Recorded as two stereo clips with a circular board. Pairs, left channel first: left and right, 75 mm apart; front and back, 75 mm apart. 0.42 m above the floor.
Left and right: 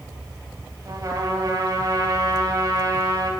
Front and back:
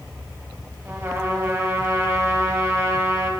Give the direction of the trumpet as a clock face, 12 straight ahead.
4 o'clock.